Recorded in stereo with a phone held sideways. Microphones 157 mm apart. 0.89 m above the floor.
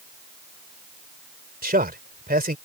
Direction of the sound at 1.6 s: 70° right (ahead or behind).